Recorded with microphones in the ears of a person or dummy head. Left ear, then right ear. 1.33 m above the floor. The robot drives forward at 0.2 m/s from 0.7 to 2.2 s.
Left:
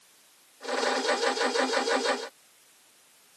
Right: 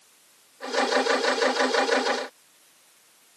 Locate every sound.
Only background noise.